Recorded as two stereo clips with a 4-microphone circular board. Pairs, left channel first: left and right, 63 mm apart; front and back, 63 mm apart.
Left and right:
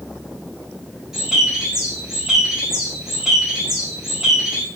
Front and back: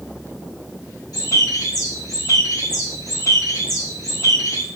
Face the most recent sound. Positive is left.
turn(degrees=-10)